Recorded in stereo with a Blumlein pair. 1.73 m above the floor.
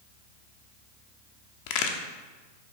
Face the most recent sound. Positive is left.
turn(degrees=45)